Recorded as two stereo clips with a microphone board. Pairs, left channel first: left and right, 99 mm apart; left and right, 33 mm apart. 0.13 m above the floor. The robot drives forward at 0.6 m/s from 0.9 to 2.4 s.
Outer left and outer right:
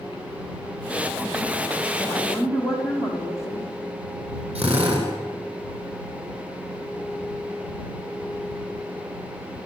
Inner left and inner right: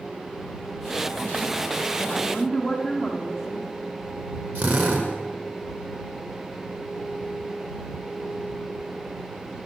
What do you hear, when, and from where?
2.0 s a woman speaking: centre (ahead or behind), 8 m
4.5 s a drill: 75° right (ahead or behind), 6 m